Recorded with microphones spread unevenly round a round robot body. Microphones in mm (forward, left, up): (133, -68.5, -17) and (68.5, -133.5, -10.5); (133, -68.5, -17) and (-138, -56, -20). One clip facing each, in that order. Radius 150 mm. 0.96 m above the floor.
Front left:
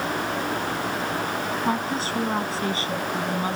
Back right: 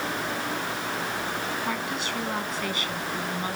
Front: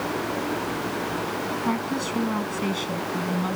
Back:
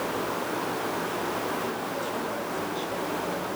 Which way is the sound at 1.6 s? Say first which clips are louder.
Front left 5 dB, front 6 dB; 5° right.